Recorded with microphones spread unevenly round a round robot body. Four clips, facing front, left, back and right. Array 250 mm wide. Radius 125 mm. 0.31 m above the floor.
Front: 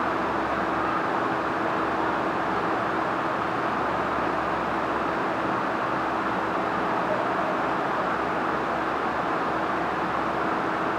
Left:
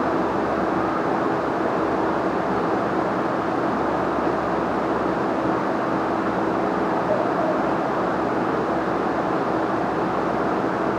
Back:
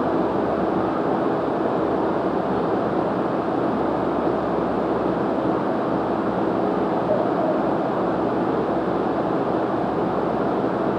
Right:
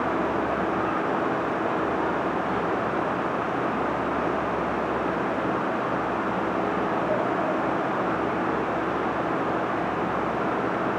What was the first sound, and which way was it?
Only background noise.